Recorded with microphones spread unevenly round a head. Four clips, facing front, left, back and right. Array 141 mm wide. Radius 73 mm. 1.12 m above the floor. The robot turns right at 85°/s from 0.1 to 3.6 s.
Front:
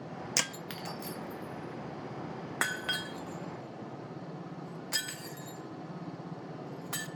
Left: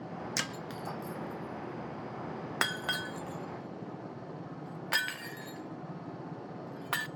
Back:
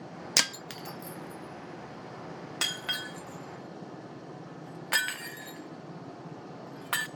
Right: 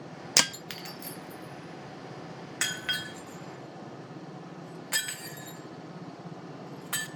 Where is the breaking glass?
125° right, 0.6 m; by 7.1 s 150° left, 0.6 m.